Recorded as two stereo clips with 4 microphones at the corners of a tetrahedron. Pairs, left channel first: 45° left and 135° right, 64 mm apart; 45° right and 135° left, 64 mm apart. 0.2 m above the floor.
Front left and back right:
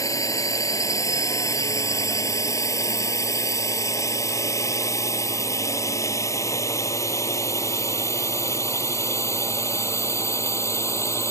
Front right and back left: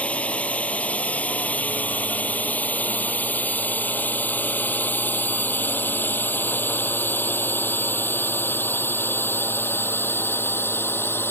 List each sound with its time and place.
0.0 s a drone: 25° left; by 11.3 s 5° left